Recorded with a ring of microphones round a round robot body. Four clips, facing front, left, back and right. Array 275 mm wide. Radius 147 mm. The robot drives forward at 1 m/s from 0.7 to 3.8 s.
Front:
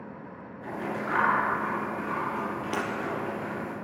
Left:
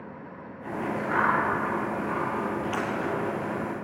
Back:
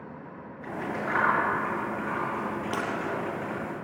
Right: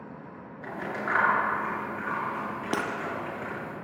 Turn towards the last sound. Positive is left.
turn(degrees=-110)